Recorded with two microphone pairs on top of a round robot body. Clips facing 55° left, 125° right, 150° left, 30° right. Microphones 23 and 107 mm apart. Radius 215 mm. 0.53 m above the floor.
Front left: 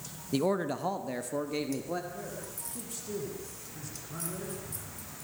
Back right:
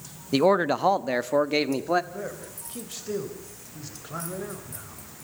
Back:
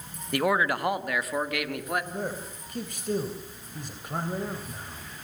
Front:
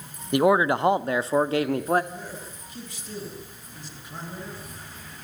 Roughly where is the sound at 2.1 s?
Behind.